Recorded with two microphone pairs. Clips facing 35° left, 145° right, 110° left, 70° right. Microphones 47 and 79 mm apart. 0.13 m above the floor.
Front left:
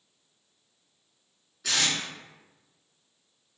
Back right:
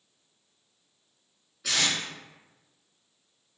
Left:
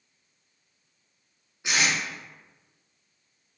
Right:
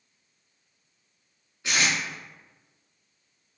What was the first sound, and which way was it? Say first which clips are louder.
Tape being pulled: even, even; 145° left.